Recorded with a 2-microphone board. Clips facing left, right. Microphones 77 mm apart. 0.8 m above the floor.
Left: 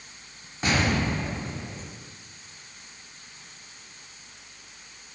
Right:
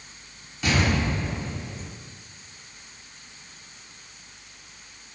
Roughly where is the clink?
No clink in this recording.